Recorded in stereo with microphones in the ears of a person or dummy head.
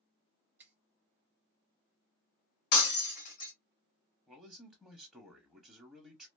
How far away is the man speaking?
About 0.7 m.